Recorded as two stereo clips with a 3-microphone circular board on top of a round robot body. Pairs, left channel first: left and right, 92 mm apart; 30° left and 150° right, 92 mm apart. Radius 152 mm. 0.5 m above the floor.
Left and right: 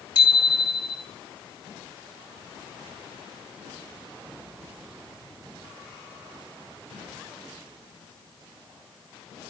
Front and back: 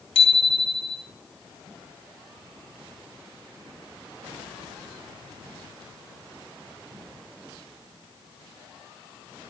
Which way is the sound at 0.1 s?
45° left.